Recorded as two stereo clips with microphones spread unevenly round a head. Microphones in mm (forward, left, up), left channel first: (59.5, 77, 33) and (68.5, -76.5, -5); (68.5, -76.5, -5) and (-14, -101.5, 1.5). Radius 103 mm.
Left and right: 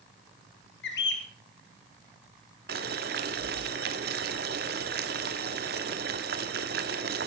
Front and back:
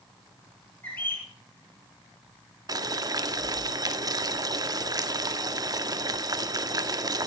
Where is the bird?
100° left, 2.5 m.